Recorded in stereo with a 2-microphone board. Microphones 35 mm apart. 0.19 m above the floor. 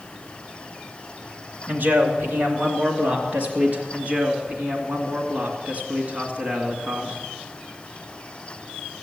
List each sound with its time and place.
1.7 s a man speaking: 50° right (ahead or behind), 2.5 m; by 3.8 s 35° right (ahead or behind), 4 m
3.9 s a man speaking: 35° right (ahead or behind), 2.5 m